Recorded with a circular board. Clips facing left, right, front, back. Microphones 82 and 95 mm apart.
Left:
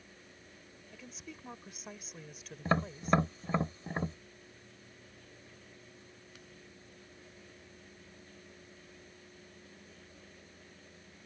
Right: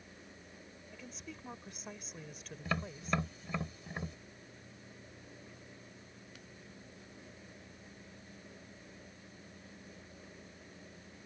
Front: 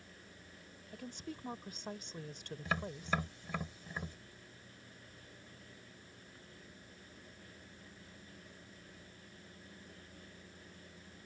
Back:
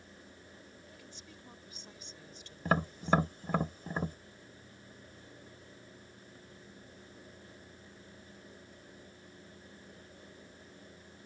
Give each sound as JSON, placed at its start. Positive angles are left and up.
{"t": 0.9, "sound": "a woman speaking", "azimuth_deg": 0}
{"t": 2.6, "sound": "tapping", "azimuth_deg": 140}